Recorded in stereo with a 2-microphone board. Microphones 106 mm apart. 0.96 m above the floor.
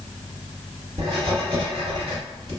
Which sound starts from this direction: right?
Writing, at 1.0 s.